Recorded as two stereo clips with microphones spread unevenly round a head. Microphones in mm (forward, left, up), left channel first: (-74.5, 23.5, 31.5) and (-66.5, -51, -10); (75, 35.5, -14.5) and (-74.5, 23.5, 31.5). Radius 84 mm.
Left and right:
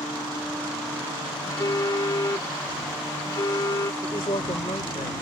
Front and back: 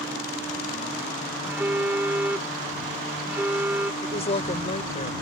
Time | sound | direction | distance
1.4 | a phone buzzing | 115° left | ?
4.0 | a woman speaking | 55° left | ?